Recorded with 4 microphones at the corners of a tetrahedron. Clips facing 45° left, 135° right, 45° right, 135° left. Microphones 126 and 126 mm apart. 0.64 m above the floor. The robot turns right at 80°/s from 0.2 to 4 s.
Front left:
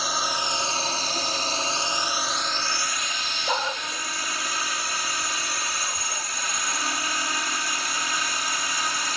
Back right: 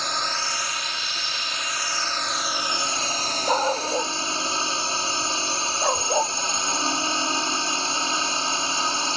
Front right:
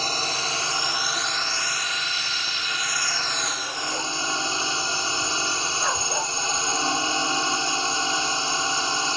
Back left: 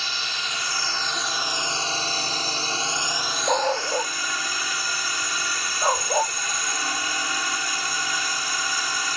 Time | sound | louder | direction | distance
0.0 | a drone | front left 1 dB, front right 5 dB | 35° right | ?
3.5 | a dog barking | back right 6 dB, back left 9 dB | 150° left | ?